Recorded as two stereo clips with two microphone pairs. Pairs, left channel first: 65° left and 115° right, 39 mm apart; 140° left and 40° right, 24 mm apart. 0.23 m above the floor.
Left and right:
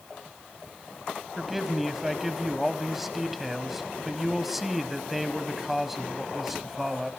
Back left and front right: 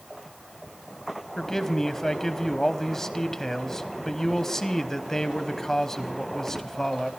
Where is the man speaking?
170° left, 1.0 m.